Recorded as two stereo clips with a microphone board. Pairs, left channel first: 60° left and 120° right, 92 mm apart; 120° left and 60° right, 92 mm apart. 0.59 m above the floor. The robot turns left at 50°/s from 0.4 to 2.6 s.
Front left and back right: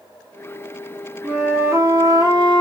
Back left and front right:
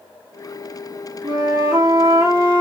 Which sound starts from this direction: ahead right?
A flute, at 1.2 s.